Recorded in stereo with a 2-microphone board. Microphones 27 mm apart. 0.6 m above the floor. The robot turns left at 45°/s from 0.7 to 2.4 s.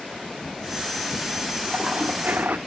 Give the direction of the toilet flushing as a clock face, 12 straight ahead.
2 o'clock.